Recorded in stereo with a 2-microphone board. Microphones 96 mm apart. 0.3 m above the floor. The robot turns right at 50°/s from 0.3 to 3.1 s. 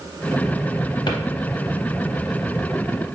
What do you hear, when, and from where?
1.1 s a drawer: 60° left (ahead or behind), 0.6 m; by 1.2 s 55° left (ahead or behind), 0.6 m